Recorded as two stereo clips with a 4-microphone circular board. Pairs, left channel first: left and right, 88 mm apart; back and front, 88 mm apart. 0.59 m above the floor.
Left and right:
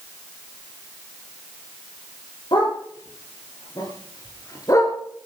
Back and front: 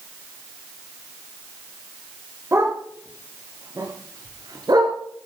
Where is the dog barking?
60° left, 6.5 m; by 5.0 s 35° left, 4 m.